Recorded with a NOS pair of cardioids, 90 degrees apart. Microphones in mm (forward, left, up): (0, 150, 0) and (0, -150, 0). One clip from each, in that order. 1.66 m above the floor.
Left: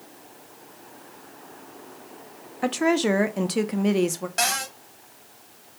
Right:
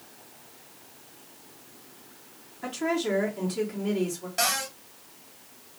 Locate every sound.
2.6 s a woman speaking: 60° left, 0.6 m
4.4 s a cupboard door: 30° left, 1.0 m